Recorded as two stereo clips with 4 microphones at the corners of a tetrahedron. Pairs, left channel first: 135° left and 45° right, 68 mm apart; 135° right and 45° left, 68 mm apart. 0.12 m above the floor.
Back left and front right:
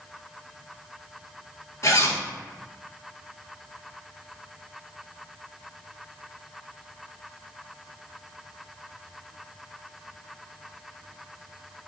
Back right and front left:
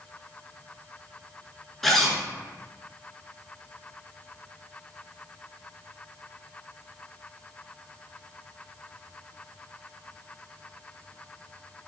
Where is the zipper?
140° left, 0.5 m.